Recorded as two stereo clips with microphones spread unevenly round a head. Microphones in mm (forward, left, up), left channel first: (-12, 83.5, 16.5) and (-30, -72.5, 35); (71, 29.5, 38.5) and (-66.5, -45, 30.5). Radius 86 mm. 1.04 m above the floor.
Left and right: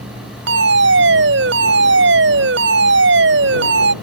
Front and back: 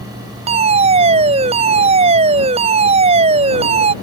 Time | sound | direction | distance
0.5 | a fire alarm | 100° right | ?